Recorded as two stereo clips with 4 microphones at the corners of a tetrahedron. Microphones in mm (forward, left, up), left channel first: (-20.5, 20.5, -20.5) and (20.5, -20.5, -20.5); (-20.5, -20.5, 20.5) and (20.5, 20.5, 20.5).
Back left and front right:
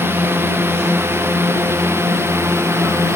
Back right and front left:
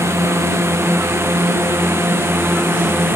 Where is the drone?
5° left; by 3.2 s straight ahead.